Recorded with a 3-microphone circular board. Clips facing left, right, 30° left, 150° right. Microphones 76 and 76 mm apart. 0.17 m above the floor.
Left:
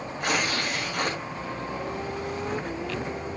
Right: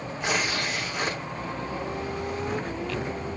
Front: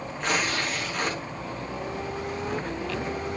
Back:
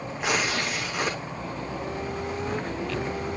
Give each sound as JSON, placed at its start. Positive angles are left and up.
{"t": 0.2, "sound": "tearing paper", "azimuth_deg": 130, "distance_m": 4.5}